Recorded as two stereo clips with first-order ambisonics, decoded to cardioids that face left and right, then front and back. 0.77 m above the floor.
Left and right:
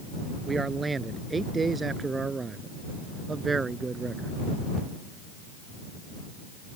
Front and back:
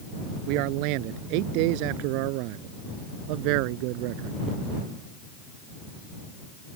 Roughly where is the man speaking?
Behind.